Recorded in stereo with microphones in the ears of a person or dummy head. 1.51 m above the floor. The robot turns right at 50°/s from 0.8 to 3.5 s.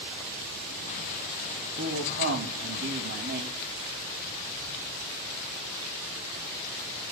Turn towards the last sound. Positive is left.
turn(degrees=-50)